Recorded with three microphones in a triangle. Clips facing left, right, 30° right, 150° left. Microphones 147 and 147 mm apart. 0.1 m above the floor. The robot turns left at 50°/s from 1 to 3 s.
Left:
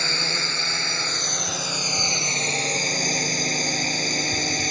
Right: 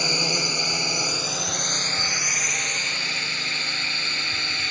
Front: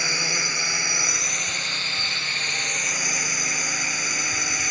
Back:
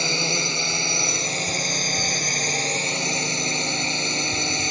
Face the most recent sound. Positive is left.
turn(degrees=105)